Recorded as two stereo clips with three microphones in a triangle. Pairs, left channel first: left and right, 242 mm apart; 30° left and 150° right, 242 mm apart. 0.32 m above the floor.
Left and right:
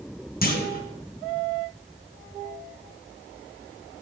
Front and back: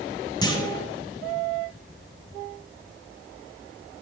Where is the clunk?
90° left, 1.1 m.